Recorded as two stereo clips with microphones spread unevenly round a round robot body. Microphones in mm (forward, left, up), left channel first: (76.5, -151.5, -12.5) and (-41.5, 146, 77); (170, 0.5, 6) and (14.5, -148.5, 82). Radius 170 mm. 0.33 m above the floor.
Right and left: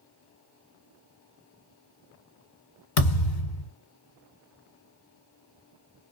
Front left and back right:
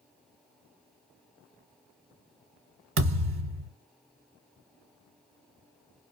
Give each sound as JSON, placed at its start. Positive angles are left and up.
{"t": 3.0, "sound": "a thud", "azimuth_deg": -100, "distance_m": 1.7}